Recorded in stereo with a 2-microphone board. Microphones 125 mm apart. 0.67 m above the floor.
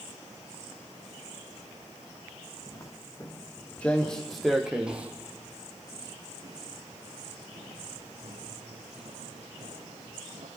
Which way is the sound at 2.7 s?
30° left (ahead or behind).